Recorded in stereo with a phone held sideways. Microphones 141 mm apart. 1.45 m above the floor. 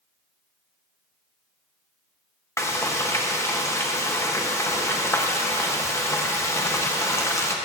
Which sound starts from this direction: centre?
Frying, at 2.6 s.